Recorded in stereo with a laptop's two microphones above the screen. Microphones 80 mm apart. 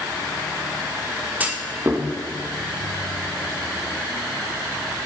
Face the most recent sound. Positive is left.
turn(degrees=-20)  # may be behind; listen again after turning